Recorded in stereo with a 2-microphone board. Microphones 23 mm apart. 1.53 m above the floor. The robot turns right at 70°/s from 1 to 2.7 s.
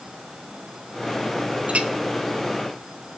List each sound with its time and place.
1.7 s a clink: 65° right (ahead or behind), 1.8 m